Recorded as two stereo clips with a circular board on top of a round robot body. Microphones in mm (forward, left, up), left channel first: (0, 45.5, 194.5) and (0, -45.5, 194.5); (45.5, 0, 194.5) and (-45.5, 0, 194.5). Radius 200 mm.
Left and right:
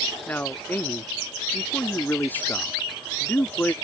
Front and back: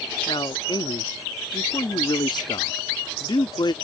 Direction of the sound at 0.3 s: 25° left.